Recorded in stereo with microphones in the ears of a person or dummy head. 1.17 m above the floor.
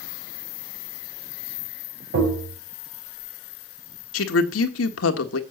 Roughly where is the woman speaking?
Left.